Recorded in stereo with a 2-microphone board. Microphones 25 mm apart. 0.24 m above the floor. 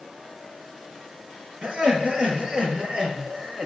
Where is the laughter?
45° right (ahead or behind), 4 m.